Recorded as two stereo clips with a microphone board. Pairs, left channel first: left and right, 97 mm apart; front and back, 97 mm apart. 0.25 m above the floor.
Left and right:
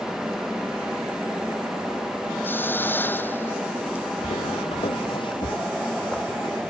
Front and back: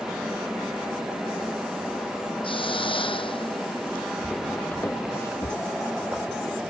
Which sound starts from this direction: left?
Footsteps, at 4.2 s.